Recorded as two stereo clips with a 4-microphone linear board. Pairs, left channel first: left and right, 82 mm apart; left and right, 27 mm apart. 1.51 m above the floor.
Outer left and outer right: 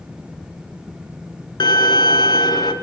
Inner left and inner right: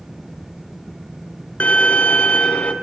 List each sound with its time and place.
1.6 s a violin: 55° left (ahead or behind), 0.9 m